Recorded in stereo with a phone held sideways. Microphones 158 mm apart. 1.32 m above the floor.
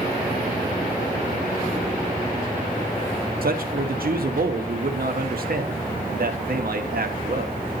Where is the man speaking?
70° right (ahead or behind), 1.0 m.